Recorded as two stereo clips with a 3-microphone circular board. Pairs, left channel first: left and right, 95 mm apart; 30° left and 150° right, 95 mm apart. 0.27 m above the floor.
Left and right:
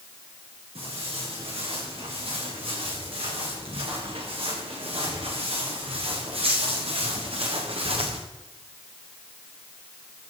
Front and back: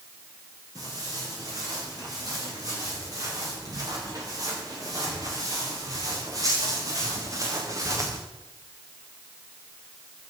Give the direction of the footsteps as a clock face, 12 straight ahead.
3 o'clock.